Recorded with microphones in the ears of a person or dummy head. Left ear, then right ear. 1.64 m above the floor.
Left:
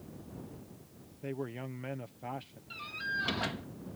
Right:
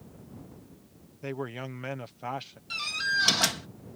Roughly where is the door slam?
Right.